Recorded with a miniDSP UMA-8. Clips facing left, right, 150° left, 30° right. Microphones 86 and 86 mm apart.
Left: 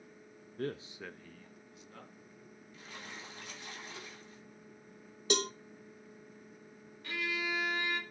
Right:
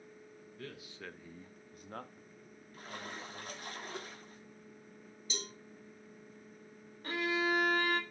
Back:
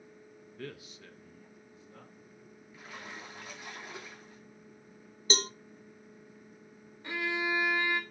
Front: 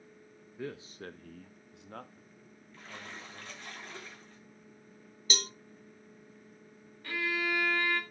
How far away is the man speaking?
About 0.8 m.